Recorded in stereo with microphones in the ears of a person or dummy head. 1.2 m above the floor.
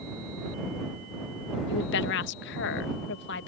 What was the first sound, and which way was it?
A woman speaking, 65° left (ahead or behind).